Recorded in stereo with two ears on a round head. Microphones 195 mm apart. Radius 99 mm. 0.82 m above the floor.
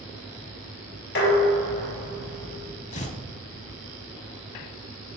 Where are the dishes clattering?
60° left (ahead or behind), 3 m.